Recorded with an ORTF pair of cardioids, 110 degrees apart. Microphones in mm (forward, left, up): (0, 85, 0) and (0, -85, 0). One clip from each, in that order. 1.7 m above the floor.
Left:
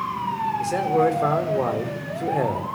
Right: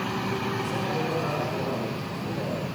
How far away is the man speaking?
About 5 m.